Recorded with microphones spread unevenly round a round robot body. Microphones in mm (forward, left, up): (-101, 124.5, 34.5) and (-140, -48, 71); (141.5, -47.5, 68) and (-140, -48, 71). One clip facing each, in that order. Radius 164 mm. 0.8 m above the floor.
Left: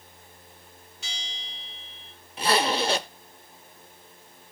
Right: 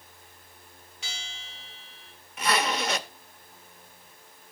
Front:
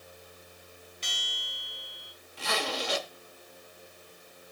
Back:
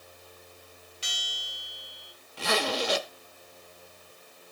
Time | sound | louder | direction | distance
1.0 | a bell | even, back 1 dB | 95° right | 3 m
2.4 | a zipper | left 3 dB, back 5 dB | 145° left | 0.8 m